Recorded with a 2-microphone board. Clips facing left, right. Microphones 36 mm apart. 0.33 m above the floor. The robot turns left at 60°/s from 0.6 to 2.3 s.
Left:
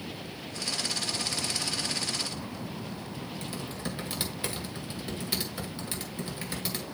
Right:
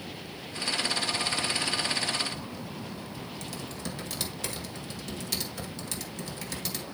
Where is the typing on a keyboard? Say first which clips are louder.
Left 2 dB; 20° left (ahead or behind), 1.8 m.